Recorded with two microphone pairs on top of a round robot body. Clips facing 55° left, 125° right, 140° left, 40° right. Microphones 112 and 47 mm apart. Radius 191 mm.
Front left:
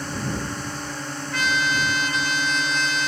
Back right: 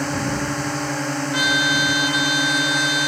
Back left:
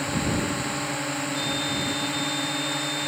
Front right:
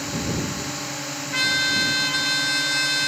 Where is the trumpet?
45° right.